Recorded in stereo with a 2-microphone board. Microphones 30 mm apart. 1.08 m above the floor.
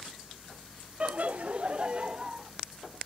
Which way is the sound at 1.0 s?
45° right (ahead or behind).